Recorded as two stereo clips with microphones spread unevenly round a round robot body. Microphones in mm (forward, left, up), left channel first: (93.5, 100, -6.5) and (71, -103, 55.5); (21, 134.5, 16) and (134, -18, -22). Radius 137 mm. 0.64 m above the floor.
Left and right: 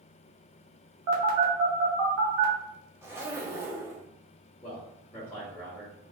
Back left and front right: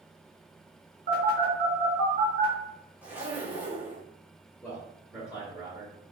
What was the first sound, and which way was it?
A phone buzzing, 105° right.